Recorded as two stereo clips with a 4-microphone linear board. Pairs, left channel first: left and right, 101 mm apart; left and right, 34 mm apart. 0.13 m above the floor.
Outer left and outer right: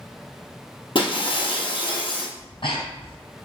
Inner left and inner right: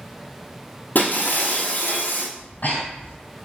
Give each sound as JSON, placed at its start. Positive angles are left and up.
{"t": 0.9, "sound": "breaking glass", "side_deg": 55, "distance_m": 1.4}
{"t": 2.4, "sound": "breathing", "side_deg": 55, "distance_m": 1.7}